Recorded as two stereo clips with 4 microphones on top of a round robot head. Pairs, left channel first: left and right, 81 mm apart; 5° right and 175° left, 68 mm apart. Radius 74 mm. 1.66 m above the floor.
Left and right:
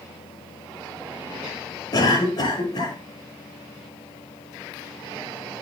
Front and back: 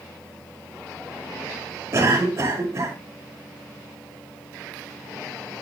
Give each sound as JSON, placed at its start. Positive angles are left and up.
{"t": 1.9, "sound": "a cough", "azimuth_deg": 130, "distance_m": 7.0}